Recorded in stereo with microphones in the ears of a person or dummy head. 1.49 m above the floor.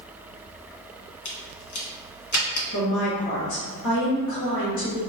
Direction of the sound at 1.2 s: 70° left (ahead or behind).